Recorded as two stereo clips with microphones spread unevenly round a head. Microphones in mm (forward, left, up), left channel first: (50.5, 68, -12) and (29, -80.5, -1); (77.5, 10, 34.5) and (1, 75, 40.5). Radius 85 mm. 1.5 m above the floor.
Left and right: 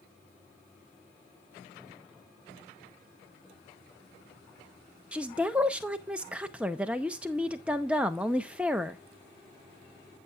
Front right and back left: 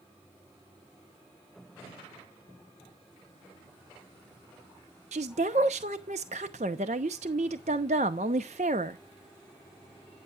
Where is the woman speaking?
Straight behind, 0.7 m.